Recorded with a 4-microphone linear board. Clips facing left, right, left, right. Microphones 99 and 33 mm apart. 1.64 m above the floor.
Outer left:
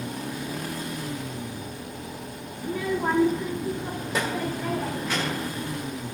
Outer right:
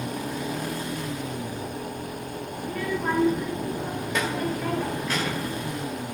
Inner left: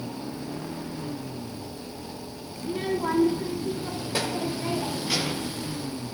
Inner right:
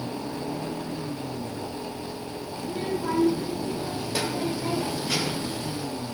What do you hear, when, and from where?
2.6 s a child speaking: 15° left (ahead or behind), 0.7 m; by 5.5 s centre (ahead or behind), 2 m